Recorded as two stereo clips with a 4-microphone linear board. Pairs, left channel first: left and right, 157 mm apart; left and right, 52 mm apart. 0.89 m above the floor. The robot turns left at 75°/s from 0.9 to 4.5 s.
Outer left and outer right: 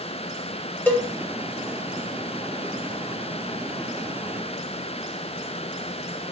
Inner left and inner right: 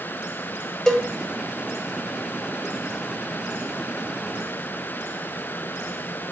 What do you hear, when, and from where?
0.9 s a cowbell: 10° left (ahead or behind), 0.7 m; by 1.1 s 20° left (ahead or behind), 0.7 m